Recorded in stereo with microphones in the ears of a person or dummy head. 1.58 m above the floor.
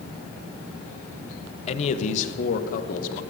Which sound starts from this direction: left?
A man speaking, at 1.7 s.